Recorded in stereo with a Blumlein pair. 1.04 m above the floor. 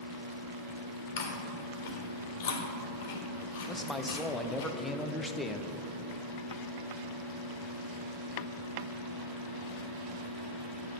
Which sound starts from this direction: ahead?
A man speaking, at 3.7 s.